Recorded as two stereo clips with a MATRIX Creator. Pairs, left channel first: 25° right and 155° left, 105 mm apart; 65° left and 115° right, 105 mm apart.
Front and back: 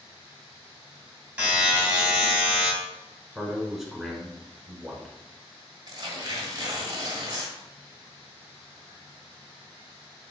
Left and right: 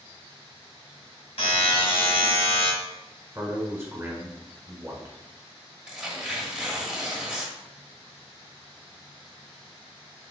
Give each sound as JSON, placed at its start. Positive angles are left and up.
{"t": 1.4, "sound": "a buzzer", "azimuth_deg": 80, "distance_m": 2.5}
{"t": 3.4, "sound": "a man speaking", "azimuth_deg": -120, "distance_m": 1.4}
{"t": 5.9, "sound": "tearing paper", "azimuth_deg": 170, "distance_m": 1.2}